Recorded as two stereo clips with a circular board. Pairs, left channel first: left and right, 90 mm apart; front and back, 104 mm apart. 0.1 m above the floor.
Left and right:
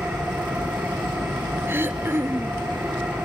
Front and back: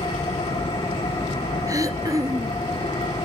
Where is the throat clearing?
140° right, 0.7 m.